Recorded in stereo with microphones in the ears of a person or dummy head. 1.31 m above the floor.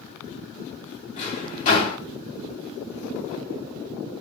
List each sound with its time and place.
1.2 s a drawer: 50° left (ahead or behind), 2.5 m